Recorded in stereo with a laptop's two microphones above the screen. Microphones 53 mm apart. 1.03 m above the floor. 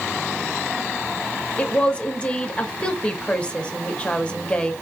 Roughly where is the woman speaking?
Left.